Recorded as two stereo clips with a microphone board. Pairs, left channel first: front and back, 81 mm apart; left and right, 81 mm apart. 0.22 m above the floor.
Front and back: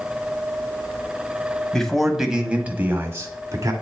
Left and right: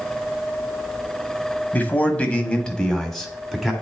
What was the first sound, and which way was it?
A man speaking, 70° left.